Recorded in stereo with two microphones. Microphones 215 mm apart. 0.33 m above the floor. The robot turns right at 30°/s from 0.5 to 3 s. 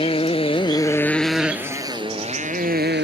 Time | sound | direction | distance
0.0 | a motorcycle | 155° left | ?